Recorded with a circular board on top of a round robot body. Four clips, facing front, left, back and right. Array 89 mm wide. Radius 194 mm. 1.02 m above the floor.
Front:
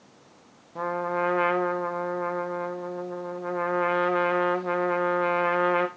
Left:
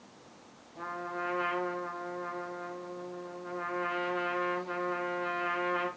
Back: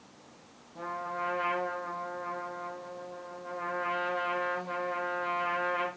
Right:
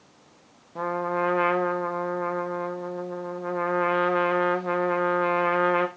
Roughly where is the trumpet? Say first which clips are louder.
Right 11 dB, front 8 dB; ahead right.